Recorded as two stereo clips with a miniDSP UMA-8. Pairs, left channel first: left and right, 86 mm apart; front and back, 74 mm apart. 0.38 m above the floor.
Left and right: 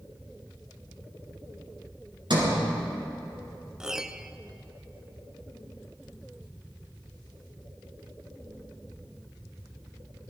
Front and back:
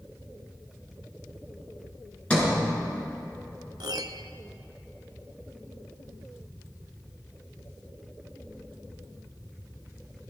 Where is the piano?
170° right, 0.6 m.